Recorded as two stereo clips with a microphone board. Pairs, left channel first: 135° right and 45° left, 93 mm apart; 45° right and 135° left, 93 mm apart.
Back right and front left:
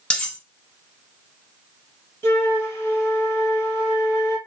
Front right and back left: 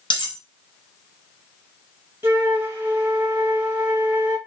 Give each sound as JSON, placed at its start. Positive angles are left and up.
{"t": 0.1, "sound": "cutlery clinking", "azimuth_deg": -60, "distance_m": 1.2}
{"t": 2.2, "sound": "a flute", "azimuth_deg": 180, "distance_m": 1.6}